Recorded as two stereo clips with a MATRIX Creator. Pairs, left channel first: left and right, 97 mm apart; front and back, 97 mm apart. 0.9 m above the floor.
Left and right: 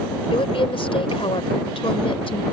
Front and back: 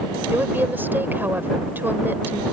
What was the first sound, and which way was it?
A woman speaking, 110° left.